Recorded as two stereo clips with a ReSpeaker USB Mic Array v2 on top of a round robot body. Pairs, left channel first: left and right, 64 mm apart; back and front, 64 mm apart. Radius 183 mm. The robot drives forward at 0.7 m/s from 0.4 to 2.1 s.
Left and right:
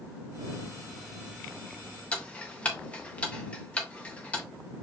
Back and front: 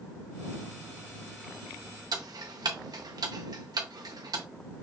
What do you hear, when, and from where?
2.1 s ticking: 20° left, 0.5 m